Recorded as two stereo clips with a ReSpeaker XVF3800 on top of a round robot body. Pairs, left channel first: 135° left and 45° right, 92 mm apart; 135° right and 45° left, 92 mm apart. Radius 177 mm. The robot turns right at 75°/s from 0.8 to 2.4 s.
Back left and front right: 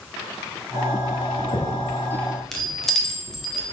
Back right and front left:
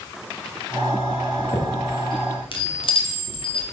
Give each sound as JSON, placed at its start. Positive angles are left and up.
{"t": 1.3, "sound": "a chime", "azimuth_deg": 140, "distance_m": 1.7}